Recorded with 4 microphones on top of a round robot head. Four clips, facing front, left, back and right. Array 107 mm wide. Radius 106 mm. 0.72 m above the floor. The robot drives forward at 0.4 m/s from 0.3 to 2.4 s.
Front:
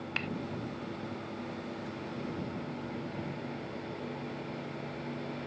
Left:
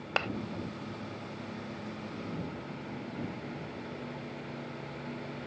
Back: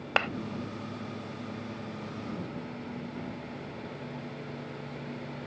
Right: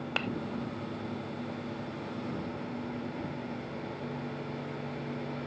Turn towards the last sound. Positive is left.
turn(degrees=170)